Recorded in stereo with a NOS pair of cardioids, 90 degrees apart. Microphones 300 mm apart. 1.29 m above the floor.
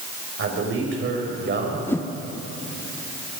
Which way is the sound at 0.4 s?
45° right.